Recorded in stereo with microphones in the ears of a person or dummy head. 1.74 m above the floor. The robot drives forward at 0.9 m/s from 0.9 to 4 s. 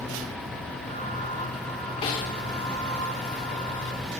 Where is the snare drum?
30° left (ahead or behind), 1.9 m.